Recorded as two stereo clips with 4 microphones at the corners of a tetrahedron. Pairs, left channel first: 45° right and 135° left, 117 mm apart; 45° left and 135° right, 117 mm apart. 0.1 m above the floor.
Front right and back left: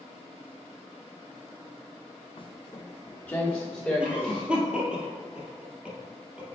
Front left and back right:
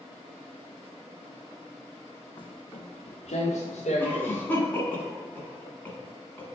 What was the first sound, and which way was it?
Footsteps, 5° right.